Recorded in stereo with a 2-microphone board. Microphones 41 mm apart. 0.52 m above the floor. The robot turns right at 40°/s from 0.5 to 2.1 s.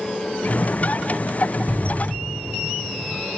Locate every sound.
1.7 s an explosion: 40° right (ahead or behind), 2.5 m; by 3.3 s 60° right (ahead or behind), 2.5 m